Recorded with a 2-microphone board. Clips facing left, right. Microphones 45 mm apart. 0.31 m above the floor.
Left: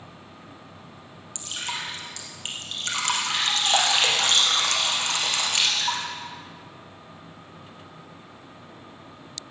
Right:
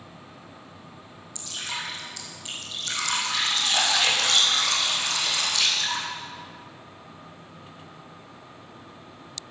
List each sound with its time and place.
1.4 s dripping: 65° left (ahead or behind), 3 m